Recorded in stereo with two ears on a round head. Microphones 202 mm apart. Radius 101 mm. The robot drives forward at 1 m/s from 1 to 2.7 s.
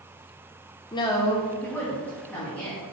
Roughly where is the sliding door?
No sliding door in this recording.